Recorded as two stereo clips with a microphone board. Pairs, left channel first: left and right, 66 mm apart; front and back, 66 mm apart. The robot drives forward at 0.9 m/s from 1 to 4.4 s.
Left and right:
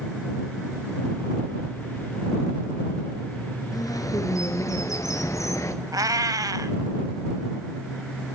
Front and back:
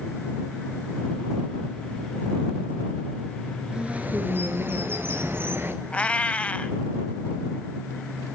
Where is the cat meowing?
70° right, 1.0 m.